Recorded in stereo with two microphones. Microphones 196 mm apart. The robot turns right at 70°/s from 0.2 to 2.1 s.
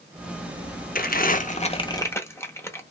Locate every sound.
0.9 s crumpling: 45° left (ahead or behind), 0.5 m; by 2.8 s 15° left (ahead or behind), 0.5 m